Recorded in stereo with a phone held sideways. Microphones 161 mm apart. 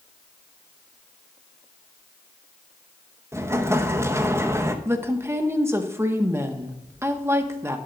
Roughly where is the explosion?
Centre.